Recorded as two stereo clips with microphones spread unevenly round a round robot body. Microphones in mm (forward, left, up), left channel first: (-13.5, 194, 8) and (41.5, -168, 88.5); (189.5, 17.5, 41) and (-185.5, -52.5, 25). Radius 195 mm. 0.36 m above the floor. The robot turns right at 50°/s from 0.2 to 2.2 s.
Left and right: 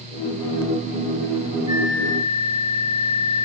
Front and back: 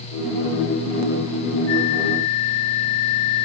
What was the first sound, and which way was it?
A flute, 5° right.